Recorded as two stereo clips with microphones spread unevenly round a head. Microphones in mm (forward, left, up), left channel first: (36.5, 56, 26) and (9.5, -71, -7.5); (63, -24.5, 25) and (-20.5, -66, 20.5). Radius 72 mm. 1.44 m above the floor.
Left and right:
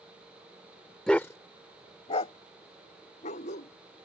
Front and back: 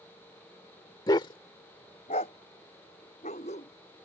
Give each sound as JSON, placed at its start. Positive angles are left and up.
{"t": 1.1, "sound": "a dog barking", "azimuth_deg": 15}